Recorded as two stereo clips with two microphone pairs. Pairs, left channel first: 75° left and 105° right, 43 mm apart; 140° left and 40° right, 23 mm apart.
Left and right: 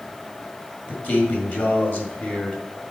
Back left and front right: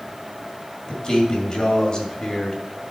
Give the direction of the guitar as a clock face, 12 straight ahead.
No guitar in this recording.